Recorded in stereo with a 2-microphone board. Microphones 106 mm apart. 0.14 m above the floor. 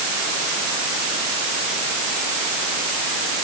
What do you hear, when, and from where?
Only background noise.